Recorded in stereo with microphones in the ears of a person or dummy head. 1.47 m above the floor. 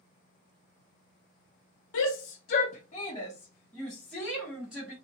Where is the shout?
75° left (ahead or behind), 0.7 m; by 4.9 s 5° right (ahead or behind), 1.6 m.